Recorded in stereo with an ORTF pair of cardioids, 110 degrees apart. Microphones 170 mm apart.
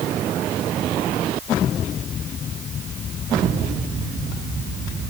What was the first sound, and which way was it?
Only background noise.